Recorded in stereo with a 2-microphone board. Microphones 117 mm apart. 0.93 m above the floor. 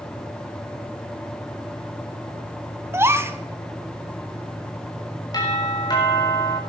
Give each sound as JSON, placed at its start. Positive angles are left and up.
{"t": 2.9, "sound": "a gasp", "side_deg": -20, "distance_m": 0.9}
{"t": 5.3, "sound": "a doorbell", "side_deg": 35, "distance_m": 4.5}